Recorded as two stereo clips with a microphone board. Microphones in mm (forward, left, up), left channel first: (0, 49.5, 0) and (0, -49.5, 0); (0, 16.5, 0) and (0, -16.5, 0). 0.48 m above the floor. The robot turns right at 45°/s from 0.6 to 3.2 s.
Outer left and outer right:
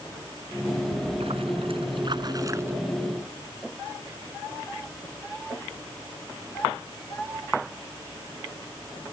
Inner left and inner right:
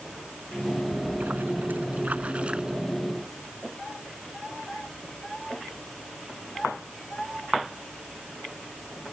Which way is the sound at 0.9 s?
105° right.